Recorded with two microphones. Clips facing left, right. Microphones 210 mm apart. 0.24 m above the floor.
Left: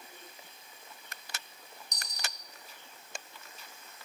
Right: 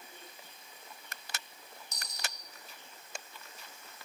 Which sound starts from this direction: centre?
A dropped coin, at 1.9 s.